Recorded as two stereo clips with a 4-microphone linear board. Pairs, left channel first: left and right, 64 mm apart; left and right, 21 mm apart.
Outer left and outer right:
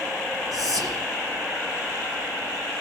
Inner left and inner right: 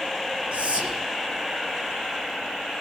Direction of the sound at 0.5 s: 70° right (ahead or behind).